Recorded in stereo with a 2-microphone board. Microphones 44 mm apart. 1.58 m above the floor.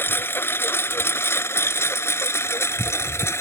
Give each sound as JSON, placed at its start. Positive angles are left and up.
{"t": 0.0, "sound": "a lawn mower", "side_deg": 60}